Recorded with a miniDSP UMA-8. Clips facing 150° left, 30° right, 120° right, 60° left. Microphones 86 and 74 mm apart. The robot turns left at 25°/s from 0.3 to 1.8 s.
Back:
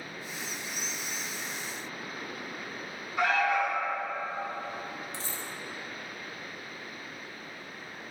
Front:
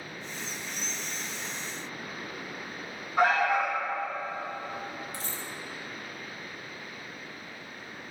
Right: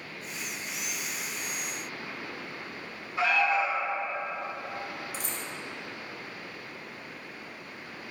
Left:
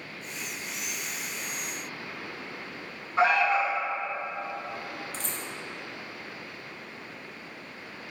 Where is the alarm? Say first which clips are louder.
Front 2 dB, left 3 dB; 15° left, 1.2 m.